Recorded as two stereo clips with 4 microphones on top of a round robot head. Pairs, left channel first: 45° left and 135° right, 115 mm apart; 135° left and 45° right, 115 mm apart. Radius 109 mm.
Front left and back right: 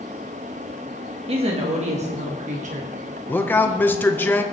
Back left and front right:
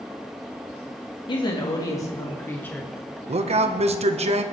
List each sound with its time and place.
1.3 s a woman speaking: 175° right, 2.0 m; by 2.9 s 145° right, 2.5 m
3.3 s a man speaking: 30° right, 1.4 m